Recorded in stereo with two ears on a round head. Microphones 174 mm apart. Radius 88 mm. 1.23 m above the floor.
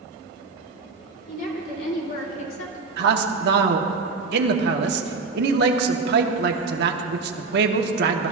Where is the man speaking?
60° right (ahead or behind), 1.2 m.